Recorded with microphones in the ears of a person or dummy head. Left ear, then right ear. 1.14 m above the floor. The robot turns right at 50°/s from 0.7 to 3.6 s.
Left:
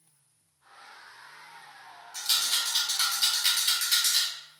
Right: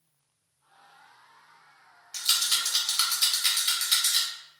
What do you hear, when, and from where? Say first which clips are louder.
2.1 s a rattle: right 1 dB; 70° right (ahead or behind), 1.4 m; by 4.3 s centre (ahead or behind), 1.4 m